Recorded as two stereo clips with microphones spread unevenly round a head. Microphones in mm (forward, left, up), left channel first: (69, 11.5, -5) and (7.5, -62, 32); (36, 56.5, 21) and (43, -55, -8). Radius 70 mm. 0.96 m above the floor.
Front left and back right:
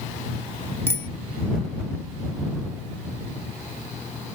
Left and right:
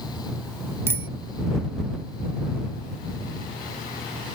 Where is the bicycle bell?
15° right.